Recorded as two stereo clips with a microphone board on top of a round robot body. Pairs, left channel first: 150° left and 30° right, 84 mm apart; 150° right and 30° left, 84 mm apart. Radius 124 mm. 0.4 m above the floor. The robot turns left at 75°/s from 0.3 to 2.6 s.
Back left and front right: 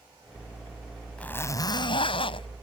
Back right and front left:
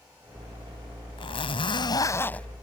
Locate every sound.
1.2 s a zipper: 135° right; by 2.5 s 130° left